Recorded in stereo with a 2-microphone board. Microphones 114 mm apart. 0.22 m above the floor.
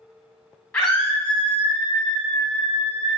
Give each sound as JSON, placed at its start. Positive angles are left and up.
{"t": 0.7, "sound": "a scream", "side_deg": 10, "distance_m": 1.4}